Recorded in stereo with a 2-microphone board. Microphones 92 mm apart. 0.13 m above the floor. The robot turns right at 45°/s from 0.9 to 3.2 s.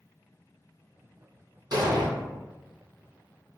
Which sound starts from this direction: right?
An explosion, at 1.7 s.